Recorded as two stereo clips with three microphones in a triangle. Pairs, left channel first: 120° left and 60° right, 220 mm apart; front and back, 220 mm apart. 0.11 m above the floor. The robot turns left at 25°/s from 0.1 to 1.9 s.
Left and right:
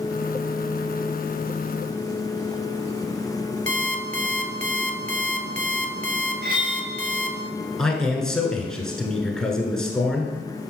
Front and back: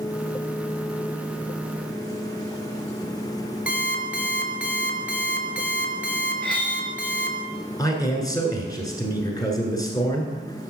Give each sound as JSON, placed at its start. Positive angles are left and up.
{"t": 3.7, "sound": "an alarm clock", "azimuth_deg": -100, "distance_m": 0.7}
{"t": 6.4, "sound": "cutlery clinking", "azimuth_deg": -85, "distance_m": 1.3}
{"t": 7.8, "sound": "a man speaking", "azimuth_deg": 40, "distance_m": 1.2}